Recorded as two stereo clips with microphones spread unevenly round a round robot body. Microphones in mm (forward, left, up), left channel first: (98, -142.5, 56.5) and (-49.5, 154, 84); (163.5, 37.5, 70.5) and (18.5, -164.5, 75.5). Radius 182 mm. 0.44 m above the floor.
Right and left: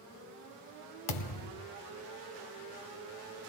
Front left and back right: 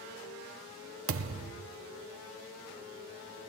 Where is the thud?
90° right, 1.2 m.